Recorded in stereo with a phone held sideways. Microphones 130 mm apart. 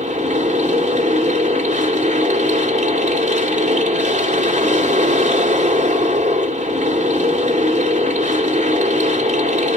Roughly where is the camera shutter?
No camera shutter in this recording.